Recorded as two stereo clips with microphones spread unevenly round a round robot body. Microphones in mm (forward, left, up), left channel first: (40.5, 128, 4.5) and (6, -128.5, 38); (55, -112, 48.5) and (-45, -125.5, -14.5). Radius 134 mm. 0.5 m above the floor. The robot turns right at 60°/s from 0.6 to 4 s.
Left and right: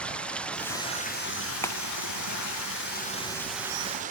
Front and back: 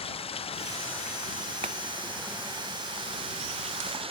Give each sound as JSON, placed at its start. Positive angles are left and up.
{"t": 0.0, "sound": "running water", "azimuth_deg": -5}
{"t": 1.6, "sound": "a clap", "azimuth_deg": 160}